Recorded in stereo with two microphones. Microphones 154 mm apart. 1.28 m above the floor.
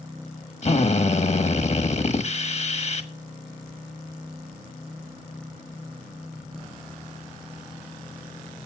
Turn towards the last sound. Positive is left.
turn(degrees=45)  # may be behind; listen again after turning